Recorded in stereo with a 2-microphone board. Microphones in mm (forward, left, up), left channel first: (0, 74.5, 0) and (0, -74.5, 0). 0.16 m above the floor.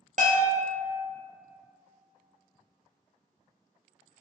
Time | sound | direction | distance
0.2 | a bell | 65° right (ahead or behind) | 0.5 m